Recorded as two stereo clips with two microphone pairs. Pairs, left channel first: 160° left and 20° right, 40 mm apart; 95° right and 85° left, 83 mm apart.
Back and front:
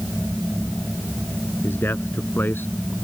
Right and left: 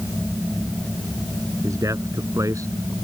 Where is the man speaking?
135° left.